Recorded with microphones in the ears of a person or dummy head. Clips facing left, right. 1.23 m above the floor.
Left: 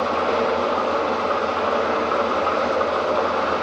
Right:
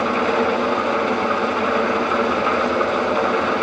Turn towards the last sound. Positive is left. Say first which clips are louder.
# right 2 dB
turn(degrees=-30)  # may be behind; listen again after turning